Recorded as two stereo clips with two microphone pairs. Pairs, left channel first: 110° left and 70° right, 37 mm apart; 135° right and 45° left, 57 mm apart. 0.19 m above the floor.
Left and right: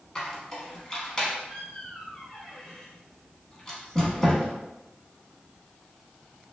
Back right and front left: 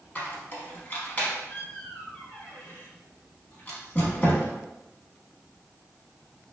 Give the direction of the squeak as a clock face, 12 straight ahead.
6 o'clock.